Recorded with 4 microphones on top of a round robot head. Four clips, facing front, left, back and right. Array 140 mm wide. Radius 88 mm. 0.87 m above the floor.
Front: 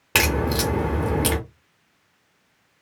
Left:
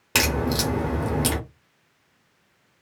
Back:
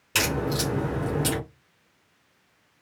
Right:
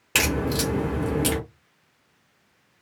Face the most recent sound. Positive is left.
turn(degrees=25)